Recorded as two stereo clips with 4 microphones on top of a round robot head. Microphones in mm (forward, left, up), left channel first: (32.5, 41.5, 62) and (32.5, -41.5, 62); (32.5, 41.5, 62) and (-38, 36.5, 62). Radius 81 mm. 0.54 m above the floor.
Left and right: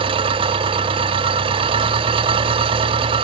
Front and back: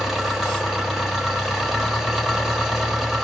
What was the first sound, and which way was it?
An engine running, 90° right.